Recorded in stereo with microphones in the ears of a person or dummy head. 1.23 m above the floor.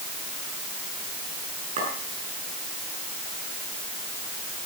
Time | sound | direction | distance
1.8 | a clink | 40° right (ahead or behind) | 7.5 m